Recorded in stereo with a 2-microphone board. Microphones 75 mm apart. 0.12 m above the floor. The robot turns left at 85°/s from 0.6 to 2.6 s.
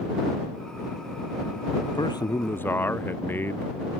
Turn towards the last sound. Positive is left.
turn(degrees=30)